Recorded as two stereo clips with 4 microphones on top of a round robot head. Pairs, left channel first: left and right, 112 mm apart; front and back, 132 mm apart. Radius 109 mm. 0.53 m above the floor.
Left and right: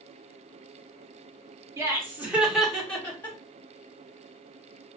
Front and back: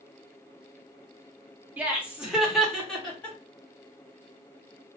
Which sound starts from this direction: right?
Laughter, at 1.8 s.